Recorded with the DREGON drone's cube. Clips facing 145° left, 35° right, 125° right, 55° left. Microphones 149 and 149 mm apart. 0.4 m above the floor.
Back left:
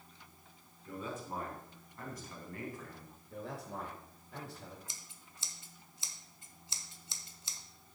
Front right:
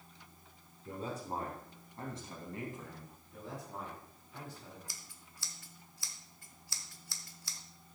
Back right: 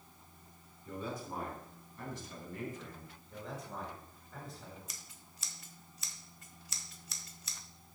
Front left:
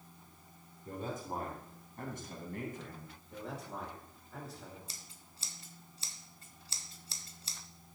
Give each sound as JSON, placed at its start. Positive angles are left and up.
{"t": 0.8, "sound": "a man speaking", "azimuth_deg": 15, "distance_m": 3.5}
{"t": 3.3, "sound": "a man speaking", "azimuth_deg": 140, "distance_m": 6.0}
{"t": 4.9, "sound": "scissors", "azimuth_deg": 95, "distance_m": 0.8}